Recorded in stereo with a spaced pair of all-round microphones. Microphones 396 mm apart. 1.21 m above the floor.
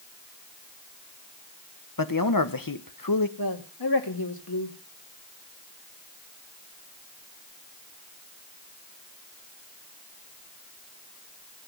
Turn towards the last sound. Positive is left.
turn(degrees=65)  # may be behind; listen again after turning